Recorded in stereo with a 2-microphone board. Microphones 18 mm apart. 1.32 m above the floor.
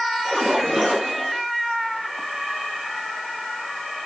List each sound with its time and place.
0.2 s a splash: 30° right (ahead or behind), 2 m